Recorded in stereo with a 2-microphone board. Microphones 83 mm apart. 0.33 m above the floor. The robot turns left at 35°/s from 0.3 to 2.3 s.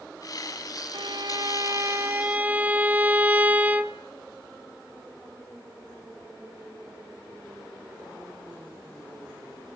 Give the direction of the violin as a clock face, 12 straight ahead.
4 o'clock.